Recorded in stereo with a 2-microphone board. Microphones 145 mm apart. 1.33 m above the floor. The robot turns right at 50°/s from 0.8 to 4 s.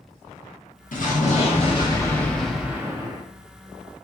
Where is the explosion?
100° left, 0.7 m; by 3.2 s 145° right, 0.7 m.